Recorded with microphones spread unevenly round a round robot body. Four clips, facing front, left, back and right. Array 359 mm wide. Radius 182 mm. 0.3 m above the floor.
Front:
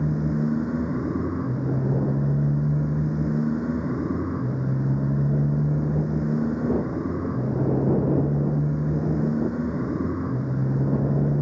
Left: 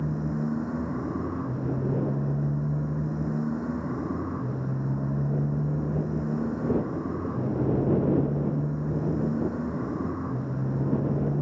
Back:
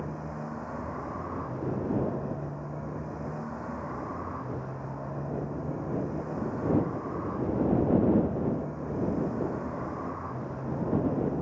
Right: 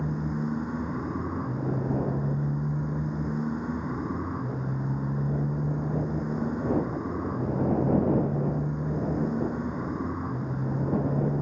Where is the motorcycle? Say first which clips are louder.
Left 1 dB, front 12 dB; 5° left.